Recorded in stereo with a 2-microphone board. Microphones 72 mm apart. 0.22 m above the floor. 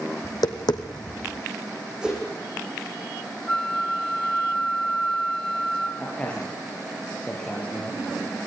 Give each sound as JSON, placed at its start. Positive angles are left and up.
{"t": 0.2, "sound": "tapping", "side_deg": 80, "distance_m": 1.8}
{"t": 2.0, "sound": "a whoosh", "side_deg": -10, "distance_m": 8.5}
{"t": 3.5, "sound": "a flute", "side_deg": 15, "distance_m": 1.0}
{"t": 6.0, "sound": "a man speaking", "side_deg": 15, "distance_m": 5.5}